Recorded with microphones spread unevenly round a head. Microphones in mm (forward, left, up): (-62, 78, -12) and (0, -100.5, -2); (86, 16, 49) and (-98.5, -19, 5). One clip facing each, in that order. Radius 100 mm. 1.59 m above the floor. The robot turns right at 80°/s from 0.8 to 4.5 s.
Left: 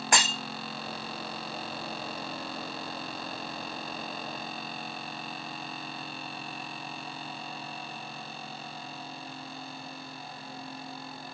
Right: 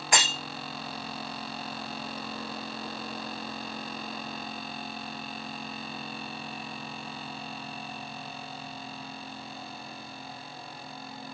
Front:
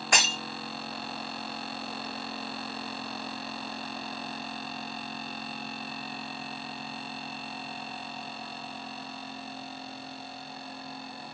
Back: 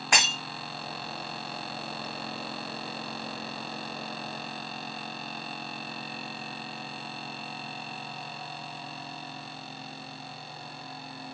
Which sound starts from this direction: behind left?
Breaking glass, at 0.1 s.